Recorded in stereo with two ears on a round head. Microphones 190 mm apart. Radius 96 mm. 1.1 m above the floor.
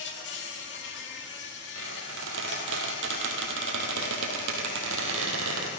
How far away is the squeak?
About 2.5 m.